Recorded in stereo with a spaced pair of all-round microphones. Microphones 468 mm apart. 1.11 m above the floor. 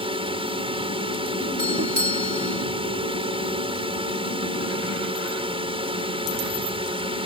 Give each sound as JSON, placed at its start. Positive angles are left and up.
{"t": 0.0, "sound": "a drone", "side_deg": -10}
{"t": 1.6, "sound": "a doorbell", "side_deg": -40}